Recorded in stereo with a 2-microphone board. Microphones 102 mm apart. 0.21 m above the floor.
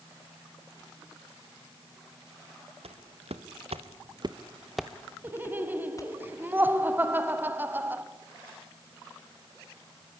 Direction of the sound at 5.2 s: 20° right (ahead or behind).